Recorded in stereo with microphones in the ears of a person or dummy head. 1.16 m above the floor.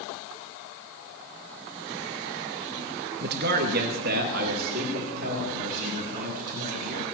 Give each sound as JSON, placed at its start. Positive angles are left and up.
{"t": 3.2, "sound": "a man speaking", "side_deg": -55, "distance_m": 0.8}